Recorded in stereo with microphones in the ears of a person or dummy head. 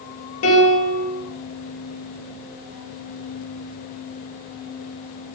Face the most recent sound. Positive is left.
turn(degrees=85)